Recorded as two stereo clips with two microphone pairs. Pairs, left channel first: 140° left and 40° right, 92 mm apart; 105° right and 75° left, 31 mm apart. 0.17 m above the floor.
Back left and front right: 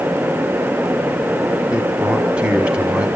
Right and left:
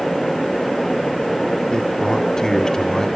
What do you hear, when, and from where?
1.7 s a man speaking: 90° right, 1.7 m